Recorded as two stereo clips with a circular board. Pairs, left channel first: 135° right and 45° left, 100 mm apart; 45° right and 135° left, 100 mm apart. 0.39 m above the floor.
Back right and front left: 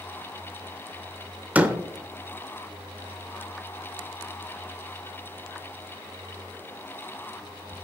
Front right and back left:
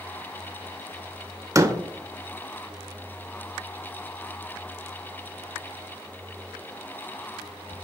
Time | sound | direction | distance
1.6 | a door slam | 110° left | 0.5 m